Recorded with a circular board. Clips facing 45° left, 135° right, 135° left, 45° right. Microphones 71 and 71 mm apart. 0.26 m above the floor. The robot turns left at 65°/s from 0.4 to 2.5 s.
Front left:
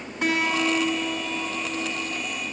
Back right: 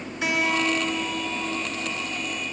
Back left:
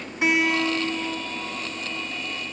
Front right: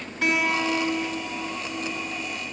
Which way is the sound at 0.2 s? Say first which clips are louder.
Front left 1 dB, back left 2 dB; 65° left.